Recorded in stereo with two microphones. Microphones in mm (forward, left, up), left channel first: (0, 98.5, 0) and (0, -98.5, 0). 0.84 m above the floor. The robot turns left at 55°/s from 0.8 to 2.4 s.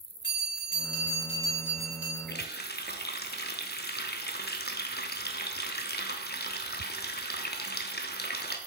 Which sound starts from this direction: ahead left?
A bell, at 0.2 s.